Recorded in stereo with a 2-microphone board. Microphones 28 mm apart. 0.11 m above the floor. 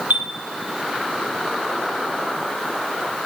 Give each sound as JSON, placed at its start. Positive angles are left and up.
{"t": 0.1, "sound": "a chime", "side_deg": -60, "distance_m": 1.1}